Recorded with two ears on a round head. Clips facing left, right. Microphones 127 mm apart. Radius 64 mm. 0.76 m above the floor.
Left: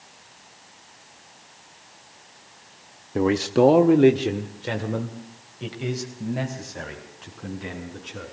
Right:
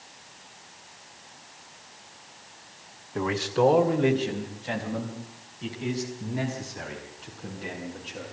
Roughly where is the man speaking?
Left.